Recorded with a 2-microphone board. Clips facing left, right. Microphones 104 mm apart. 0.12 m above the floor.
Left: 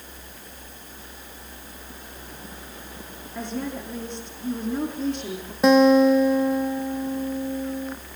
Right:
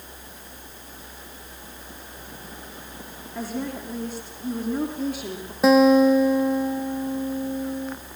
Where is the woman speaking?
5° right (ahead or behind), 5 m.